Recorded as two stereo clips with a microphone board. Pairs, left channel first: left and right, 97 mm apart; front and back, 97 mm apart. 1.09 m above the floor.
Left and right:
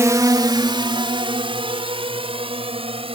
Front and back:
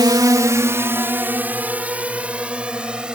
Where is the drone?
145° right; by 3.1 s 100° right.